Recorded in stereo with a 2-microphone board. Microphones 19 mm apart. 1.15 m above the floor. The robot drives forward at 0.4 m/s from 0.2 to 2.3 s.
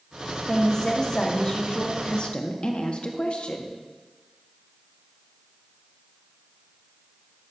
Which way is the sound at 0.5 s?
30° left (ahead or behind).